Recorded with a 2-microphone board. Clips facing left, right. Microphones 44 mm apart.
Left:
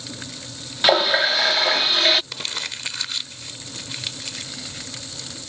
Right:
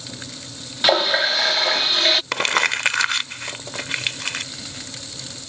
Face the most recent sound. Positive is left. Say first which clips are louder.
# right 11 dB
turn(degrees=-70)  # may be behind; listen again after turning